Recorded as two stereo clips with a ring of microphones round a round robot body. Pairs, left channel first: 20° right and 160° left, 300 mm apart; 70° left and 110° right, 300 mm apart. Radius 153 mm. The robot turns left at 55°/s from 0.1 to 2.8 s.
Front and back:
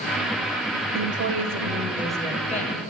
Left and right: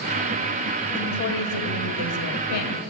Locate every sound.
0.9 s a woman speaking: 130° left, 1.7 m; by 2.8 s 30° left, 1.7 m